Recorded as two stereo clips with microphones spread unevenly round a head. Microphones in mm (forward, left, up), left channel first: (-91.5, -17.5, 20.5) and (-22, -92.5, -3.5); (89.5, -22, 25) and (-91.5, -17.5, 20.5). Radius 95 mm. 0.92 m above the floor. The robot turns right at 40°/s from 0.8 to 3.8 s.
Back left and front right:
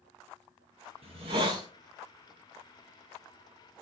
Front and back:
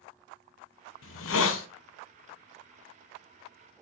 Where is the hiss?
10° right, 0.5 m; by 1.7 s 15° left, 0.5 m.